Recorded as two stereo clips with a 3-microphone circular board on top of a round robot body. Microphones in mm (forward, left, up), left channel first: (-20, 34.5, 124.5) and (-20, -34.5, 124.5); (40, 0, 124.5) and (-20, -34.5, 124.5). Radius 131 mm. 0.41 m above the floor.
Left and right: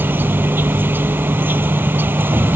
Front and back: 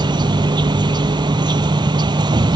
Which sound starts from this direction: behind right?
An insect, at 0.0 s.